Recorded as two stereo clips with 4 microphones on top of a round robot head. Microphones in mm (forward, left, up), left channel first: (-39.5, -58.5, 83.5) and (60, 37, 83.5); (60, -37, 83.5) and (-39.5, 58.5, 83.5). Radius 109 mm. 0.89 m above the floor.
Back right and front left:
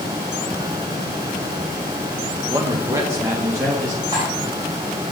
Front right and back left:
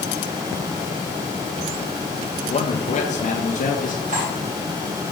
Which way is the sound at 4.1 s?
105° left.